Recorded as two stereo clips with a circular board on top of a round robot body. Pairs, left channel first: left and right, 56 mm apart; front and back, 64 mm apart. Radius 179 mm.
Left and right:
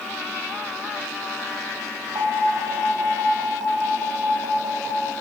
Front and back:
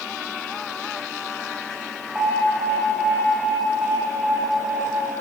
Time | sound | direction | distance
2.1 | an alarm | 105° right | 5 m